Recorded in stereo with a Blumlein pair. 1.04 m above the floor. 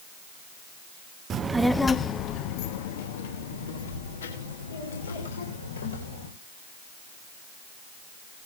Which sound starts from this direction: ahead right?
A child speaking, at 1.3 s.